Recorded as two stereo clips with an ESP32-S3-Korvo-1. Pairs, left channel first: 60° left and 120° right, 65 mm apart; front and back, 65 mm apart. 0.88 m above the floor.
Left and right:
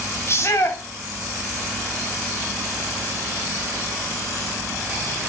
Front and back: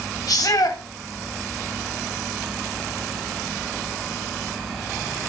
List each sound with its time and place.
0.3 s a shout: 15° left, 2.5 m